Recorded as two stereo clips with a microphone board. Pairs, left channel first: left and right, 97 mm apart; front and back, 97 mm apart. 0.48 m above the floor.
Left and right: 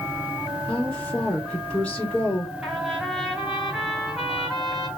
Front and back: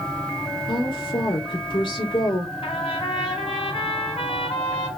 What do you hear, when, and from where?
0.7 s a woman speaking: 10° left, 1.5 m
2.6 s a trumpet: 5° right, 1.7 m